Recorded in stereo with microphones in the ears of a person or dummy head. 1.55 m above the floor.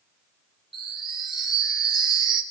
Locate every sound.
0.7 s a chime: centre (ahead or behind), 1.9 m